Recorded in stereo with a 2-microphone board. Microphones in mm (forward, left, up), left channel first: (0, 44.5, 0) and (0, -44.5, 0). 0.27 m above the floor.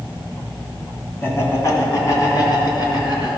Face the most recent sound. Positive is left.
turn(degrees=55)  # may be behind; listen again after turning